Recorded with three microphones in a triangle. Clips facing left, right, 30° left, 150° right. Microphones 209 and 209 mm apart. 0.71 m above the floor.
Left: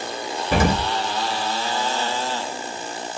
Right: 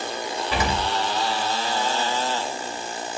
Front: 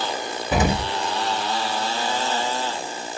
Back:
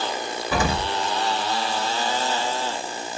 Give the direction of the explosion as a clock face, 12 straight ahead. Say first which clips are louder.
Left 6 dB, front 3 dB; 9 o'clock.